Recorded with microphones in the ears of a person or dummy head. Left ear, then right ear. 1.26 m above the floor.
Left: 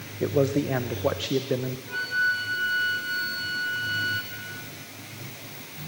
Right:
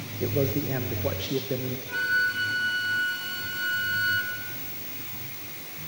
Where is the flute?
10° right (ahead or behind), 2 m.